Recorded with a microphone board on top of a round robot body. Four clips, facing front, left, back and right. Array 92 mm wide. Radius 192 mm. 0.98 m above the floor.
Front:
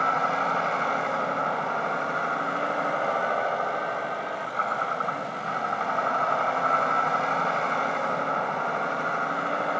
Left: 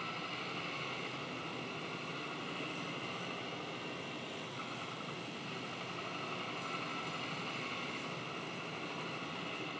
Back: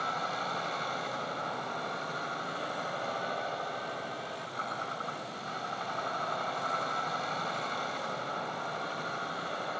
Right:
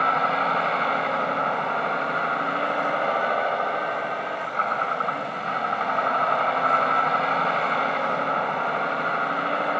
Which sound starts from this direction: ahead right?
A vehicle, at 0.0 s.